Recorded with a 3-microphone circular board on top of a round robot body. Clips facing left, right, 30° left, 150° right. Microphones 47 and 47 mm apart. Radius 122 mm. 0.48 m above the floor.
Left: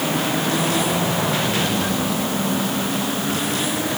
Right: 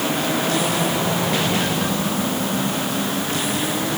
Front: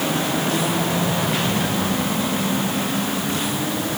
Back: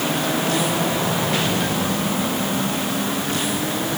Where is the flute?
No flute in this recording.